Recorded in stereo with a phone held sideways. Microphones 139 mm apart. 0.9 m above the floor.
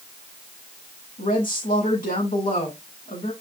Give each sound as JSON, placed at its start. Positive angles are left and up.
{"t": 1.2, "sound": "a woman speaking", "side_deg": 80, "distance_m": 9.0}